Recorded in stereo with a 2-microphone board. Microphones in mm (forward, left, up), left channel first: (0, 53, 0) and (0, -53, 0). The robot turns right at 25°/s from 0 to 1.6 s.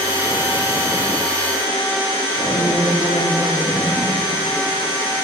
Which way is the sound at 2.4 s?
25° right (ahead or behind).